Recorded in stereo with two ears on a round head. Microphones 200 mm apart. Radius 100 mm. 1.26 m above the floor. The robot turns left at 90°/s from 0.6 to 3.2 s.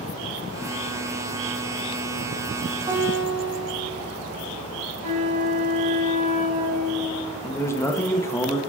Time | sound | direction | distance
2.9 | a guitar | 20° right (ahead or behind) | 2 m
5.0 | a flute | 75° right (ahead or behind) | 1.6 m
7.4 | a man speaking | 10° left (ahead or behind) | 1.1 m